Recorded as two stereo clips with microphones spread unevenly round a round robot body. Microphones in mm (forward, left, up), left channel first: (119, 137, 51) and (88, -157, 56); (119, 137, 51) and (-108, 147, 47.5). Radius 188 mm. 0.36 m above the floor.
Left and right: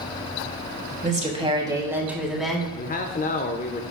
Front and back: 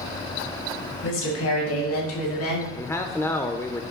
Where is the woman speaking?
35° right, 2.5 m; by 2.6 s 5° right, 3 m.